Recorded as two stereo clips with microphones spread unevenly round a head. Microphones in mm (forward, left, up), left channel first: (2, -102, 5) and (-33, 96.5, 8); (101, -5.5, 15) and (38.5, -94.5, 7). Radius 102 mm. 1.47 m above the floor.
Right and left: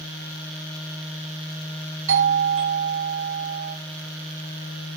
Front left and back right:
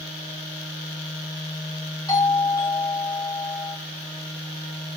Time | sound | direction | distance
2.1 | a doorbell | 130° left | 3.5 m